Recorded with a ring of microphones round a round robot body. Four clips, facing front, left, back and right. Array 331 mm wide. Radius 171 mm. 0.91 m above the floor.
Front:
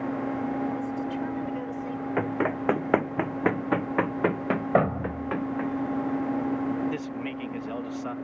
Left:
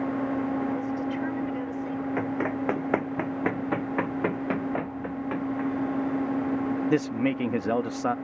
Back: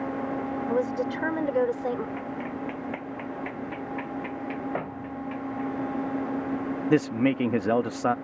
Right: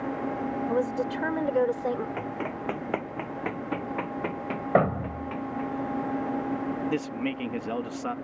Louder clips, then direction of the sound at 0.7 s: Right 2 dB, back 4 dB; 140° right.